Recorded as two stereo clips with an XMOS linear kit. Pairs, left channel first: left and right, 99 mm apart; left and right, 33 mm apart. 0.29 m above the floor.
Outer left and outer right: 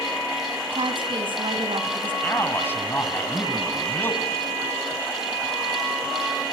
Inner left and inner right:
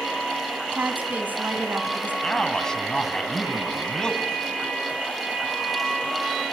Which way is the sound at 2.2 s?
20° left (ahead or behind).